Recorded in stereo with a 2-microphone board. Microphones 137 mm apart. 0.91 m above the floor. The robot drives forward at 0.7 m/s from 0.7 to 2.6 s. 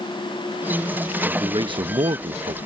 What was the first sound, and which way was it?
A man speaking, 30° right (ahead or behind).